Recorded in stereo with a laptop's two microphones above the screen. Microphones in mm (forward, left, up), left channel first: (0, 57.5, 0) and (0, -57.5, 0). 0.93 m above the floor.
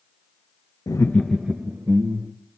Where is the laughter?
35° left (ahead or behind), 0.8 m; by 2.3 s 35° right (ahead or behind), 1.5 m.